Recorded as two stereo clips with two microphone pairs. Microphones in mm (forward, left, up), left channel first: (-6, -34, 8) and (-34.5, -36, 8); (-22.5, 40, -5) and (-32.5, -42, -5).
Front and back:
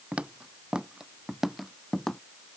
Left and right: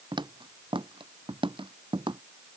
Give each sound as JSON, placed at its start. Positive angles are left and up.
{"t": 0.1, "sound": "footsteps", "azimuth_deg": -120}